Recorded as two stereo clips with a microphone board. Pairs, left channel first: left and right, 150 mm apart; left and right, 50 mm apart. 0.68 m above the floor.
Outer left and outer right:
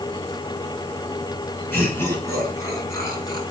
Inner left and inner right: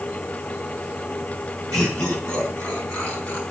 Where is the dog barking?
I don't hear a dog barking.